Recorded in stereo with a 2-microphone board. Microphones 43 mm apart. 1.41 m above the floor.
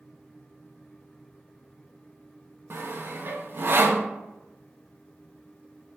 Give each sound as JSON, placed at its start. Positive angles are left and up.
{"t": 2.7, "sound": "sawing", "side_deg": -55, "distance_m": 0.5}